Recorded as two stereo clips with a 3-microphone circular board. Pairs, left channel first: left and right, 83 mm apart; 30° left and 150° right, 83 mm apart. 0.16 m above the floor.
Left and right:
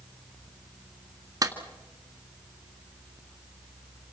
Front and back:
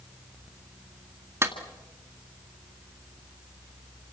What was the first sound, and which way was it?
A clap, 110° right.